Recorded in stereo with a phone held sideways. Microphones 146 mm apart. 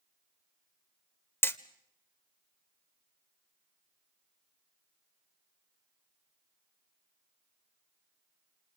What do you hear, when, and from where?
1.4 s hammering: 15° left (ahead or behind), 1.2 m